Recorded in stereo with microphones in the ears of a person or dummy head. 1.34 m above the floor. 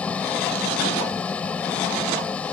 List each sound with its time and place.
0.0 s an engine running: 10° left (ahead or behind)